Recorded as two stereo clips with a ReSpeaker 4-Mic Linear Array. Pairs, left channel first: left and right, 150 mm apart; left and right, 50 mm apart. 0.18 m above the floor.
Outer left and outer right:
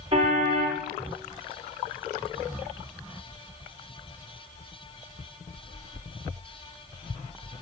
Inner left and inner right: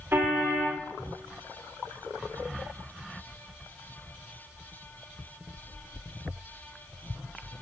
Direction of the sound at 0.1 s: 40° right (ahead or behind).